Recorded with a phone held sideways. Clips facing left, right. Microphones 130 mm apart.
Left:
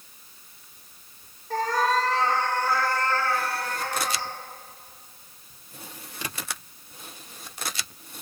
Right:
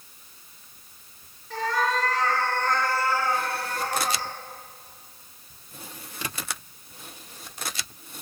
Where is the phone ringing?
No phone ringing in this recording.